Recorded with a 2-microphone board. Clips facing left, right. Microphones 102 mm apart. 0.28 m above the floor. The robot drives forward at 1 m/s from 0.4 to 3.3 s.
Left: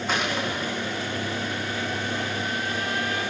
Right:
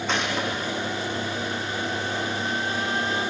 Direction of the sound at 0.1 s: 5° left (ahead or behind).